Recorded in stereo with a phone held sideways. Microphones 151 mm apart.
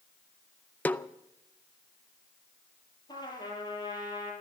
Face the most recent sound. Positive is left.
turn(degrees=30)  # may be behind; listen again after turning